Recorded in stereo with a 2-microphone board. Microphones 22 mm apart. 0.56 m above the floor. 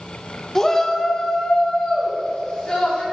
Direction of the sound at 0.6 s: 20° left (ahead or behind).